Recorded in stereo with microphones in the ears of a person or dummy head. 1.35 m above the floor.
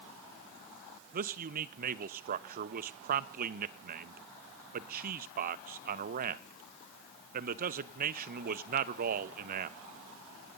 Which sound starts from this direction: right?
A man speaking, at 1.1 s.